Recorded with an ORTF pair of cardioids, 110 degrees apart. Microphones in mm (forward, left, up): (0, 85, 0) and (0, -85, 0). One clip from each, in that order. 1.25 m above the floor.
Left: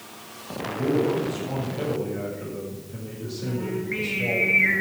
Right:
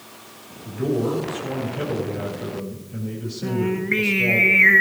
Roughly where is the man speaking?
Ahead.